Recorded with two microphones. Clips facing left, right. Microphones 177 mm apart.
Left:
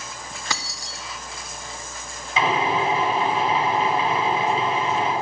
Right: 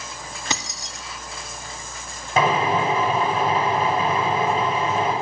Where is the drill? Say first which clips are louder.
Right 2 dB; 55° right (ahead or behind), 5 m.